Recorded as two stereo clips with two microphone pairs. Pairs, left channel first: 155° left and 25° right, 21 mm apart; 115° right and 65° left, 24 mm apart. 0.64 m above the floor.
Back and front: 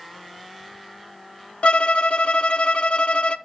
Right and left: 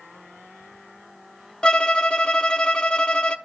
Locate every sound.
1.6 s a violin: 165° right, 0.6 m